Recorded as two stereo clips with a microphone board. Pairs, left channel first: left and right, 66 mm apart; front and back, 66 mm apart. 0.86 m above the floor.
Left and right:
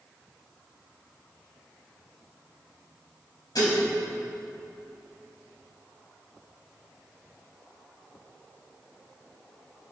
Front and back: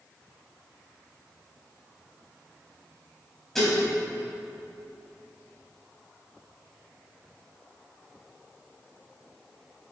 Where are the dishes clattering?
85° left, 4.5 m.